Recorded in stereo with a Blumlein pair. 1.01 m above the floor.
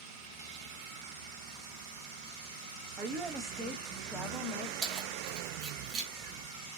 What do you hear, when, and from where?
3.0 s a woman speaking: 30° right, 1.1 m; by 4.7 s 30° left, 0.9 m
4.8 s keys jangling: 35° right, 1.2 m